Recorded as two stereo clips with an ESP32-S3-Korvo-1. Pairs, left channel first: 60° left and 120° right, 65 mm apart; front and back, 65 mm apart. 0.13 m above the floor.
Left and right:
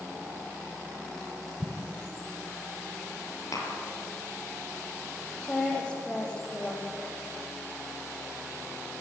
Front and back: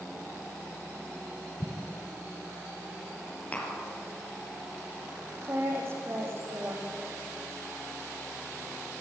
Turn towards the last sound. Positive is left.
turn(degrees=130)